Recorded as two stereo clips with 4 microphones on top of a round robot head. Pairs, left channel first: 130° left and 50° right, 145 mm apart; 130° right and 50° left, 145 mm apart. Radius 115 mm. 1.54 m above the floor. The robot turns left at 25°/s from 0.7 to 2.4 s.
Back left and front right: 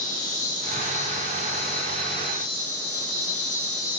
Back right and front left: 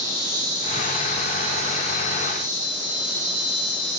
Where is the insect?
110° left, 1.9 m; by 4.0 s 70° left, 1.9 m.